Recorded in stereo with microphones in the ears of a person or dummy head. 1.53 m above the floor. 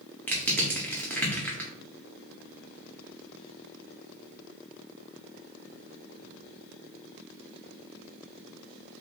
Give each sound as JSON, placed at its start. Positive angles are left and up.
{"t": 0.3, "sound": "crushing", "side_deg": 10, "distance_m": 0.6}